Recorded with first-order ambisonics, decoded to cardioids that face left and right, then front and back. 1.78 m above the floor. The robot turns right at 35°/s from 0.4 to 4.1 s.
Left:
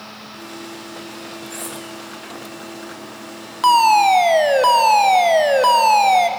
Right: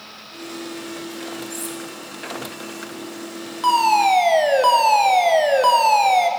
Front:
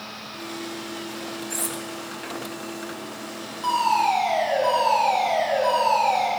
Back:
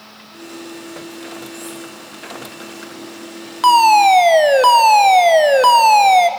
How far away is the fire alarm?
About 1.1 m.